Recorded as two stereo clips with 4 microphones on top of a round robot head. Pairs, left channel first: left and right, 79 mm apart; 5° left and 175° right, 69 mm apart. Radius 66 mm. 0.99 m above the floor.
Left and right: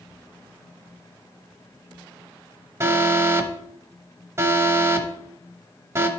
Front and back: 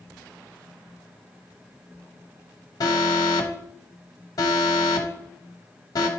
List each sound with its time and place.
2.8 s an alarm: 35° right, 1.0 m